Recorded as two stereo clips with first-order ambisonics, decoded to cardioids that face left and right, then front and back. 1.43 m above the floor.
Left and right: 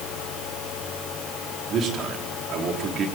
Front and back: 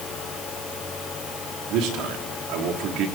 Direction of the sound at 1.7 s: 145° right.